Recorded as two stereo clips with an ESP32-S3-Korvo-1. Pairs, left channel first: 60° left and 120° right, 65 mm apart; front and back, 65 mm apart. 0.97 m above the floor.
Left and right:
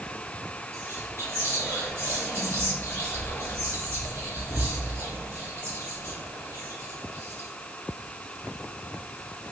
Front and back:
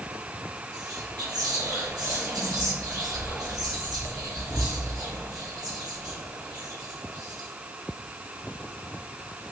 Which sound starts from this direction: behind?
Whispering, at 0.7 s.